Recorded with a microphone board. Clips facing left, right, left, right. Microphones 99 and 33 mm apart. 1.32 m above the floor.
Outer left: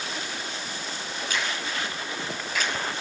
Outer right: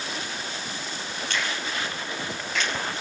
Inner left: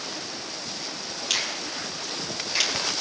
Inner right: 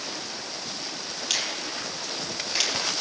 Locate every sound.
1.3 s a finger snap: 5° left (ahead or behind), 6 m